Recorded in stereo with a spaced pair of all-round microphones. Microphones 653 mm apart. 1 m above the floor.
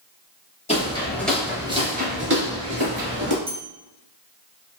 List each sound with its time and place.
0.7 s footsteps: 10° left (ahead or behind), 1.2 m; by 3.4 s 35° right (ahead or behind), 1.3 m
3.5 s a bell: 50° right (ahead or behind), 0.9 m